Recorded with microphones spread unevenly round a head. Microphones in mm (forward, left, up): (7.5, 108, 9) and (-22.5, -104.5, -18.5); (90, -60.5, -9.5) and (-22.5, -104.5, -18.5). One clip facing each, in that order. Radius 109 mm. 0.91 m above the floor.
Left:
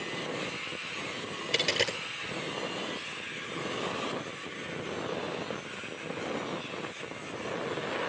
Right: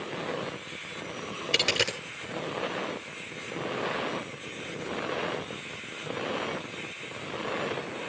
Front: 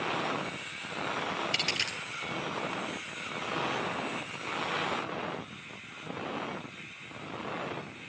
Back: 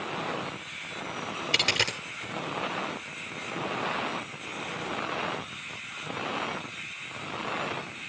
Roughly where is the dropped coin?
Behind.